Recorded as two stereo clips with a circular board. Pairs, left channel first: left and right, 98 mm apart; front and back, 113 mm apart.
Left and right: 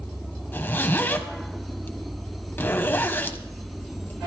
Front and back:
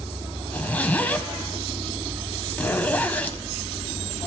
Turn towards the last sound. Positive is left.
turn(degrees=55)